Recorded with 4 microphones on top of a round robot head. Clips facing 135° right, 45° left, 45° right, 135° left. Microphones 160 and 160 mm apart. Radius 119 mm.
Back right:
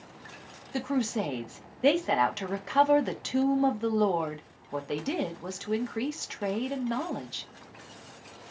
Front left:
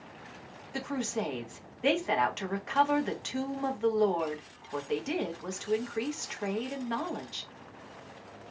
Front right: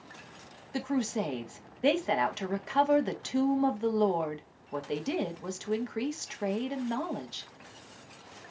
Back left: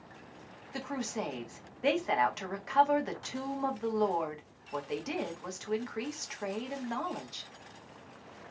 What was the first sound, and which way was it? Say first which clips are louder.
A woman speaking: back right 5 dB, front right 6 dB; 95° right.